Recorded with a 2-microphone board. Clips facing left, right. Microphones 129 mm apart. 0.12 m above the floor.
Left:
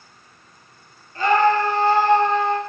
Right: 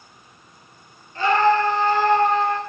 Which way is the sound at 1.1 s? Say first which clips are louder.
Left 1 dB; 45° left (ahead or behind).